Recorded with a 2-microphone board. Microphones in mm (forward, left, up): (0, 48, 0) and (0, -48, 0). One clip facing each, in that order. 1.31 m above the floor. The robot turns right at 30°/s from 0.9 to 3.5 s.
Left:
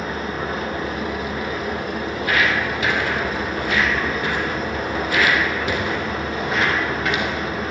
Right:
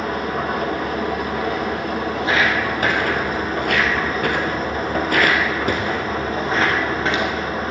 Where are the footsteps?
20° right (ahead or behind), 3 m; by 7.3 s 30° right (ahead or behind), 3.5 m.